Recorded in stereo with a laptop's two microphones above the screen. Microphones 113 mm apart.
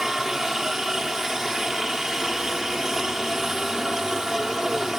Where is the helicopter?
5° right (ahead or behind).